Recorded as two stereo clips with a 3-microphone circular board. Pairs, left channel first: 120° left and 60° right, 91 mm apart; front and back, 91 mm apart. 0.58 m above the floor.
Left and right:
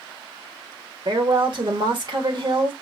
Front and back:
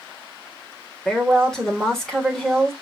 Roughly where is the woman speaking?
Right.